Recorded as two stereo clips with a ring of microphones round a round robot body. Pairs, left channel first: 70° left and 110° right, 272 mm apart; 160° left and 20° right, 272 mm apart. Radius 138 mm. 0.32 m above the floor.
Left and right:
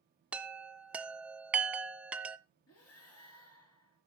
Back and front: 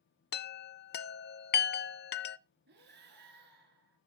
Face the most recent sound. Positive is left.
turn(degrees=30)